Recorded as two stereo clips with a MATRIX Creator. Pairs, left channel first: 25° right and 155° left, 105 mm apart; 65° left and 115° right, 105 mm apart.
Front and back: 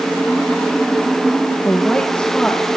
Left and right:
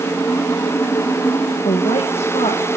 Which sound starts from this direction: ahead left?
A woman speaking, at 1.6 s.